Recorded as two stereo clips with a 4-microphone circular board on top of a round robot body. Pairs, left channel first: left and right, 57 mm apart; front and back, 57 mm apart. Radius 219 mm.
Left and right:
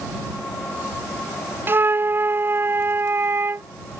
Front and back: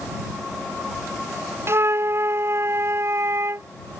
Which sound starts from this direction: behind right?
A flute, at 1.7 s.